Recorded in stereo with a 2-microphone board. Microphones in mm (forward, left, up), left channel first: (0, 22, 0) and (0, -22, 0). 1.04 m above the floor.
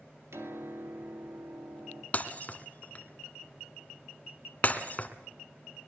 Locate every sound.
0.3 s a piano: 80° right, 2.5 m
2.1 s breaking glass: 35° left (ahead or behind), 1.9 m